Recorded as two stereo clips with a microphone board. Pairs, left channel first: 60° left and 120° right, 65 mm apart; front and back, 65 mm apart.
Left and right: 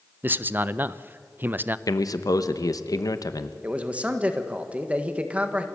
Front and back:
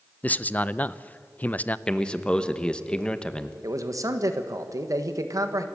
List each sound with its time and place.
0.2 s a man speaking: 65° right, 0.5 m
1.9 s a man speaking: 75° left, 1.0 m
3.6 s a man speaking: 175° left, 1.4 m